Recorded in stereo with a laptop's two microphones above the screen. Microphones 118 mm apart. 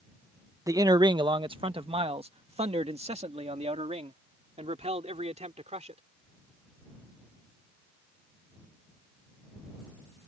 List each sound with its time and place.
0.7 s a man speaking: 30° right (ahead or behind); by 6.0 s 70° right (ahead or behind)